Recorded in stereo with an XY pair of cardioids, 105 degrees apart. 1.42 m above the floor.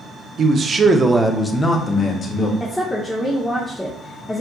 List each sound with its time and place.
0.4 s a man speaking: 50° right, 0.7 m; by 2.5 s 50° left, 1.0 m
2.6 s a woman speaking: 5° left, 0.6 m